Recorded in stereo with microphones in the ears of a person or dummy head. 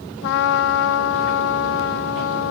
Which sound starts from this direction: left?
A trumpet, at 0.2 s.